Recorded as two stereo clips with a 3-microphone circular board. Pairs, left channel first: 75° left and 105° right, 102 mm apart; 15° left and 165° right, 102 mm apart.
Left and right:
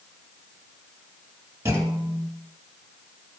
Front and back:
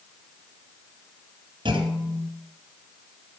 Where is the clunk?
165° right, 1.7 m.